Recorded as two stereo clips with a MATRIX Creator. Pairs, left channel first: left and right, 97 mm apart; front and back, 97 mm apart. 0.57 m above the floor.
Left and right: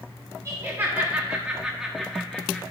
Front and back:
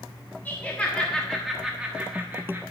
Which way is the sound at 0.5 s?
55° right.